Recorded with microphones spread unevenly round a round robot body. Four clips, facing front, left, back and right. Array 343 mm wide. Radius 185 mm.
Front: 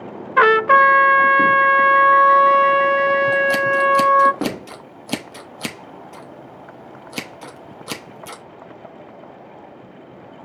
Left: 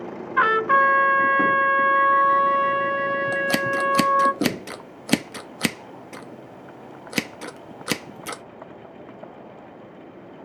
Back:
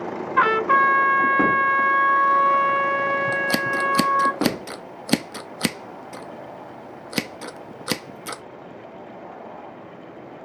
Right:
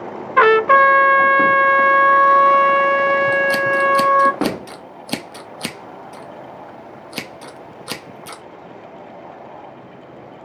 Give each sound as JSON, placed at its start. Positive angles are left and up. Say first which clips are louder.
{"t": 0.4, "sound": "a trumpet", "louder": "right 7 dB, front 5 dB", "azimuth_deg": -50, "distance_m": 0.7}
{"t": 3.3, "sound": "scissors", "louder": "right 6 dB, front 6 dB", "azimuth_deg": 130, "distance_m": 0.9}